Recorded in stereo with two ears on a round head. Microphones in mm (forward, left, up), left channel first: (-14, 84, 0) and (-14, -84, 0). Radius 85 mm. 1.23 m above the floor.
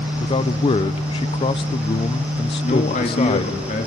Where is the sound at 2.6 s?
40° left (ahead or behind), 2.5 m.